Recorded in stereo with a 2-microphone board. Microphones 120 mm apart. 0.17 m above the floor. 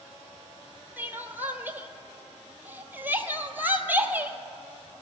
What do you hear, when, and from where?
1.0 s crying: 15° right (ahead or behind), 0.7 m